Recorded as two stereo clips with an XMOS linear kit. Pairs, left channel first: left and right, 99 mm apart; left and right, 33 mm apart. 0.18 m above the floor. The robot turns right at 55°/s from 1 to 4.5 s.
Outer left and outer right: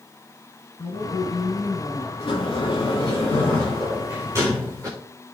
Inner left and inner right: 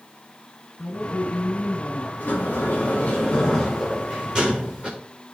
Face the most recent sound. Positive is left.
turn(degrees=-145)